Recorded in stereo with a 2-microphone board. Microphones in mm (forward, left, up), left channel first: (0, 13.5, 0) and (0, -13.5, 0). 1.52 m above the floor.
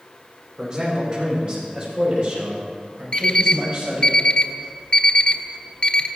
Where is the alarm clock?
35° left (ahead or behind), 1.1 m.